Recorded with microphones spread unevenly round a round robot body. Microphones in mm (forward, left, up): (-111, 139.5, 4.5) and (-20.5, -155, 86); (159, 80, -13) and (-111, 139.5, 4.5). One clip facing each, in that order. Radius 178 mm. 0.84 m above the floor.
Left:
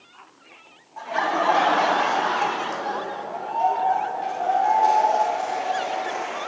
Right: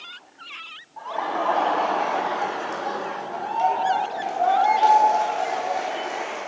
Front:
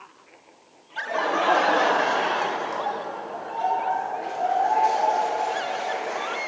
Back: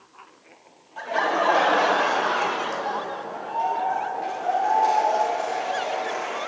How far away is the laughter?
About 1.7 m.